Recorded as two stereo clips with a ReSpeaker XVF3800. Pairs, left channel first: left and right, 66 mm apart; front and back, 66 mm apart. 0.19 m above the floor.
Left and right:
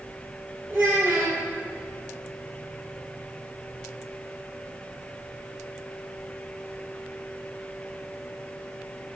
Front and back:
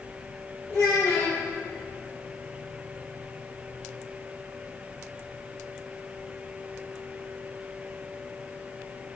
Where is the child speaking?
35° right, 4.5 m.